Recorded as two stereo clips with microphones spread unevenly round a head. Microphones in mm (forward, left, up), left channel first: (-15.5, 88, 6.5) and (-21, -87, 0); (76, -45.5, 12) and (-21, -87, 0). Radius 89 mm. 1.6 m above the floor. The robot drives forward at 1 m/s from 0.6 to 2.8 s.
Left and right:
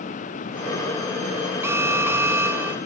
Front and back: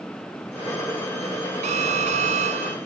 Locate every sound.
1.6 s an alarm: 170° right